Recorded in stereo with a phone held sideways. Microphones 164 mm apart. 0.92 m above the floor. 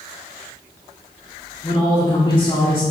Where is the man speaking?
30° left (ahead or behind), 1.9 m.